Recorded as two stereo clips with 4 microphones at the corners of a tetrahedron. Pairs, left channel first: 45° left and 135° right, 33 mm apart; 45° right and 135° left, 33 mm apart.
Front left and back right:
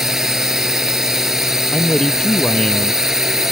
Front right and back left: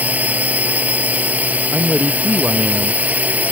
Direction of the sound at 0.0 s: 150° left.